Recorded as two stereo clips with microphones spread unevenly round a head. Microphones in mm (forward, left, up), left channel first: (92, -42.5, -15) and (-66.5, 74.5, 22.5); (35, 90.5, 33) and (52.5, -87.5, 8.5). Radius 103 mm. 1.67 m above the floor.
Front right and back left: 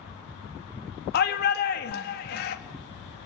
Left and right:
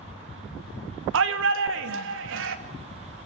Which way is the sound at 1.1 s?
85° right.